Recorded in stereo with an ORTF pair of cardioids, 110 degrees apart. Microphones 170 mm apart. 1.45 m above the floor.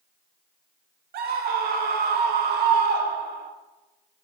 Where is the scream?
65° right, 0.9 m.